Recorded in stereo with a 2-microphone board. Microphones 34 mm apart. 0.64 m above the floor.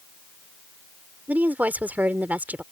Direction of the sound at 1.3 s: 55° right (ahead or behind).